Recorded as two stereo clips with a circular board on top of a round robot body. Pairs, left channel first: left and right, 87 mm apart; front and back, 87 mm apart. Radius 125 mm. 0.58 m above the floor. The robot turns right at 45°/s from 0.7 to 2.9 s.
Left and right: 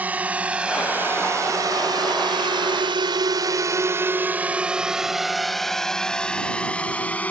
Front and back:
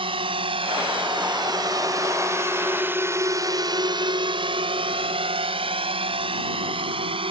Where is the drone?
165° right; by 7.3 s 165° left.